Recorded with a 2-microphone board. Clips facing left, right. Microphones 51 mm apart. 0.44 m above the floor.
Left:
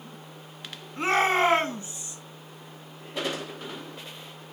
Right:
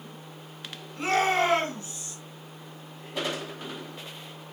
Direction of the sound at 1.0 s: 30° left (ahead or behind).